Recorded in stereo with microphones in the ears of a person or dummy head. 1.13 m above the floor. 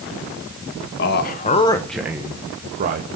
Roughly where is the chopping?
I don't hear chopping.